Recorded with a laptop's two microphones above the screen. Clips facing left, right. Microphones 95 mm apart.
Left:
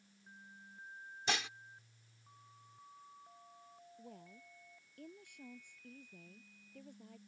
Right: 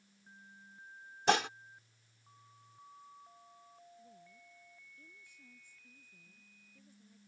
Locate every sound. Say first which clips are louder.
1.3 s dishes clattering: right 10 dB; 55° right (ahead or behind)
4.0 s a woman speaking: left 4 dB; 70° left (ahead or behind)